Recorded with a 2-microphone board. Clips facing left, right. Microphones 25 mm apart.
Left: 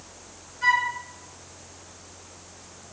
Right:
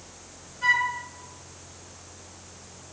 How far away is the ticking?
No ticking in this recording.